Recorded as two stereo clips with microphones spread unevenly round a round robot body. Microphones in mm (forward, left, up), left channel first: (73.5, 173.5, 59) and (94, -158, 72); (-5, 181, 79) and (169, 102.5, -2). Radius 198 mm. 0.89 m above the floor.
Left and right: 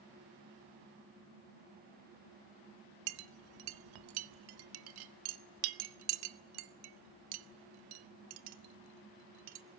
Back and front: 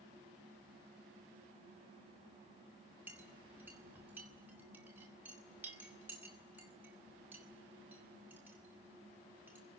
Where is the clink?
100° right, 0.8 m.